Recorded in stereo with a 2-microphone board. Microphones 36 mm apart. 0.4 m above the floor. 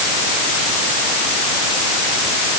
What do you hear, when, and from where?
Only background noise.